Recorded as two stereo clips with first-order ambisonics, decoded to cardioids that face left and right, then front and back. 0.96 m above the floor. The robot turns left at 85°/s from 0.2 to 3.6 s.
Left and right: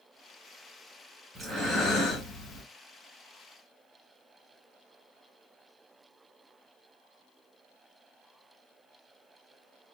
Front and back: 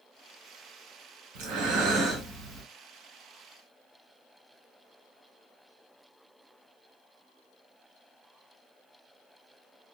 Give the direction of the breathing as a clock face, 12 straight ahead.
6 o'clock.